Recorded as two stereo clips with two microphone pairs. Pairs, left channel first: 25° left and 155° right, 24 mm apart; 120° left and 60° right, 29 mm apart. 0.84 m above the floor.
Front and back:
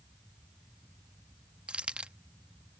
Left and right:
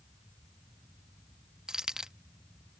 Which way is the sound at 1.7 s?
135° right.